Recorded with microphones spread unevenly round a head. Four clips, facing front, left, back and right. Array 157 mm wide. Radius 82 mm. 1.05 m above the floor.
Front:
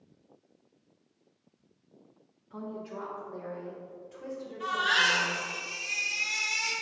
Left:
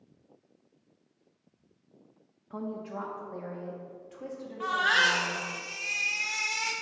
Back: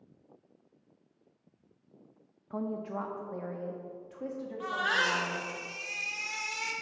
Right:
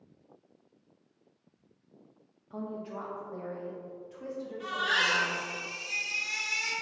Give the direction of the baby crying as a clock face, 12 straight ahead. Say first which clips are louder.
Left 5 dB, front 3 dB; 8 o'clock.